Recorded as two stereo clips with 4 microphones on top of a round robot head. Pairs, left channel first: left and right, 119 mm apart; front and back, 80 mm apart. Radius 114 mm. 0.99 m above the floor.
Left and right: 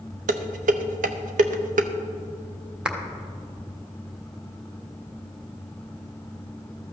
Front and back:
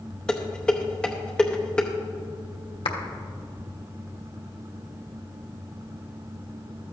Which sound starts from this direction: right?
Dishes clattering, at 0.3 s.